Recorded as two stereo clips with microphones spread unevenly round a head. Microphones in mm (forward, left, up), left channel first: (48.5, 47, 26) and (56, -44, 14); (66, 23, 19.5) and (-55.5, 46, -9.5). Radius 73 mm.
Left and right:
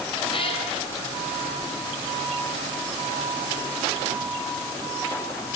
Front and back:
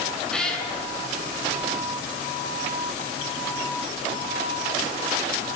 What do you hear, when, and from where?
0.3 s a cat meowing: 70° left, 8.5 m